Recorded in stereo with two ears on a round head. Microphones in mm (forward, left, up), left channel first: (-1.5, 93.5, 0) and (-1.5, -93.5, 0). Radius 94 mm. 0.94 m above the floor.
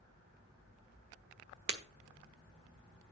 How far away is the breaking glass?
About 1.2 m.